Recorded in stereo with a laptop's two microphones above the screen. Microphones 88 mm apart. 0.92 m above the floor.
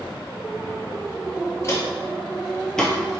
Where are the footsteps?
35° left (ahead or behind), 1.0 m; by 3.2 s centre (ahead or behind), 1.2 m.